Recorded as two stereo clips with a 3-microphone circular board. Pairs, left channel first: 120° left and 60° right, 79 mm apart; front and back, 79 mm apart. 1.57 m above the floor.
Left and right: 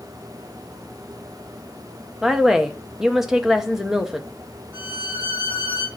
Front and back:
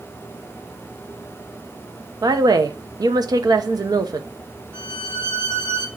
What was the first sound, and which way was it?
A woman speaking, 145° right.